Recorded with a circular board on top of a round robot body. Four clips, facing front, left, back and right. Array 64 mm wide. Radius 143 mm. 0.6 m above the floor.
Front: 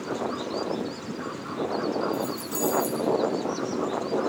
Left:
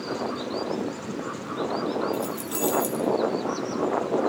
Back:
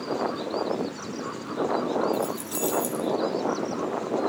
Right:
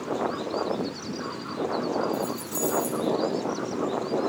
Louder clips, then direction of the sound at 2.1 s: Left 1 dB, back 1 dB; 120° left.